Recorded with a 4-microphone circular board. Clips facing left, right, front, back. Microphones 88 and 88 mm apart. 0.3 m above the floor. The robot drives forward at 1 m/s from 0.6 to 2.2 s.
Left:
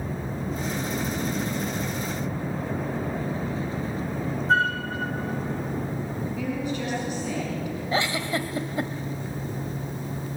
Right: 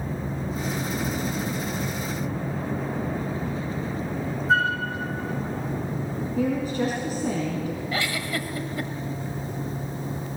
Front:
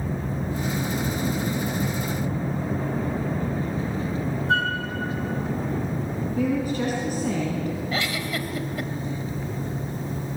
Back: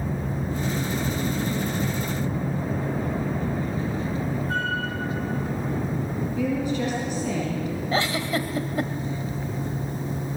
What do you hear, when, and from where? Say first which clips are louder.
4.5 s a flute: even, front 6 dB; 5° right, 5 m
6.4 s a woman speaking: right 7 dB, front 1 dB; 45° right, 4 m
7.9 s a giggle: left 6 dB, back 3 dB; 140° left, 1.3 m